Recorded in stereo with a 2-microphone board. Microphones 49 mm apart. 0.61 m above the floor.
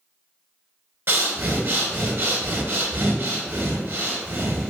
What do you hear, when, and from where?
1.1 s breathing: 50° right (ahead or behind), 0.6 m